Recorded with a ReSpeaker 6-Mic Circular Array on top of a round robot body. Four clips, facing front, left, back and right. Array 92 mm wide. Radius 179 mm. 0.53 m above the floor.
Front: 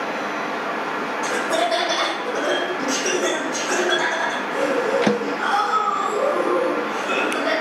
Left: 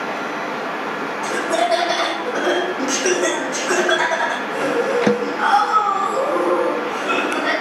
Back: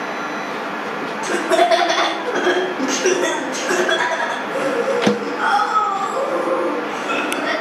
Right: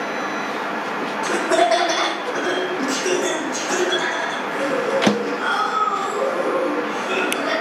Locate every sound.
1.2 s laughter: 145° right, 2 m; by 7.5 s 135° left, 6.5 m